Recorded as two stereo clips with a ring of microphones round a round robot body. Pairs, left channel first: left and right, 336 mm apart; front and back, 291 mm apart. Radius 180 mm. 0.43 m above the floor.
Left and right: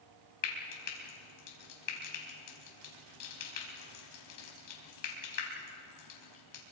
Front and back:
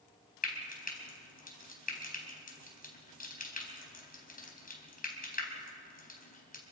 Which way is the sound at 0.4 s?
60° left.